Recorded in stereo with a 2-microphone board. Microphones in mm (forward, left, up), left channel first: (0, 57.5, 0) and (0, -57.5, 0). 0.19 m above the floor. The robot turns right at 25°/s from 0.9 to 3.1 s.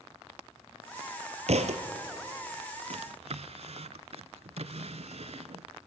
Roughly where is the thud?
Right.